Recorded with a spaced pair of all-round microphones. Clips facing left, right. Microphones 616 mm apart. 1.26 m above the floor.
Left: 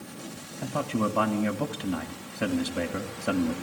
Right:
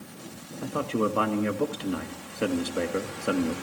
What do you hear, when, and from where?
0.6 s a man speaking: 20° left (ahead or behind), 1.8 m